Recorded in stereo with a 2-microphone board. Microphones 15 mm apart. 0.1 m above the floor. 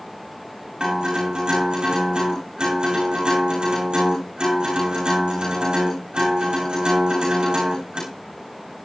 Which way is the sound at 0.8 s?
75° right (ahead or behind).